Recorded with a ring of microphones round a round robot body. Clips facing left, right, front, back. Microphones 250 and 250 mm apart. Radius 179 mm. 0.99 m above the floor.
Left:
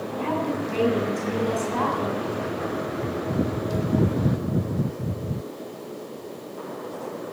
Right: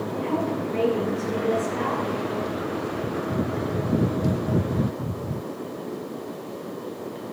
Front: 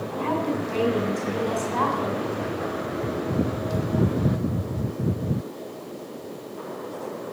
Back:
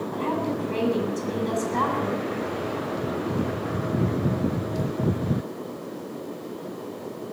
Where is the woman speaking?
130° left, 8 m.